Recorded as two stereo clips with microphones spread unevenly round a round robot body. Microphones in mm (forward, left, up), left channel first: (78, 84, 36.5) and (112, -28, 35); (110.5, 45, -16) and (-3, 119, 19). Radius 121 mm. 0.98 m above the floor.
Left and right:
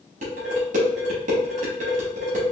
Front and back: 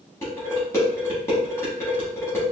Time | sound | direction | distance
0.2 | dishes clattering | 115° right | 0.8 m